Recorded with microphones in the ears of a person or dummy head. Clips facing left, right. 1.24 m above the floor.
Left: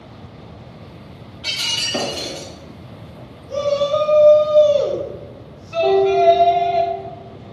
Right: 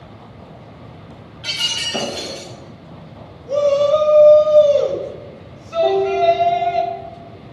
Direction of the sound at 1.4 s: 10° right (ahead or behind).